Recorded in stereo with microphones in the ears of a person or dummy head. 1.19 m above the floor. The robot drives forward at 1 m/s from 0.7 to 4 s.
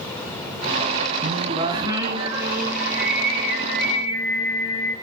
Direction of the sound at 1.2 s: 35° right (ahead or behind).